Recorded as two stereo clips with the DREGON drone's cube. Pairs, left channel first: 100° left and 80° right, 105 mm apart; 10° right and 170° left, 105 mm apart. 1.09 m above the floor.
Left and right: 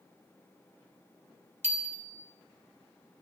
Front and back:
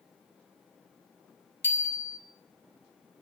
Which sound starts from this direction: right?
A bicycle bell, at 1.6 s.